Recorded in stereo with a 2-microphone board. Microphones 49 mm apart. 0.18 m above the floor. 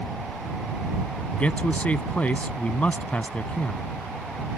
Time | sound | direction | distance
1.3 | a man speaking | 30° left (ahead or behind) | ?